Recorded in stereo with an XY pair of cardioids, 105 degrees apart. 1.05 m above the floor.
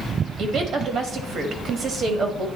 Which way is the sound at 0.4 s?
55° right.